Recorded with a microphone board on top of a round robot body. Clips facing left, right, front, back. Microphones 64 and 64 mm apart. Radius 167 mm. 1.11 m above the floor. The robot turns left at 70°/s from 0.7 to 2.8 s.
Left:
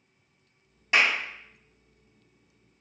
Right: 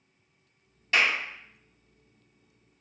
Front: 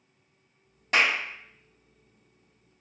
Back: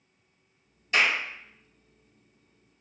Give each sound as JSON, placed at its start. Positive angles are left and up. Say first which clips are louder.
{"t": 0.9, "sound": "a clap", "louder": "left 1 dB, front 1 dB", "azimuth_deg": 15, "distance_m": 2.0}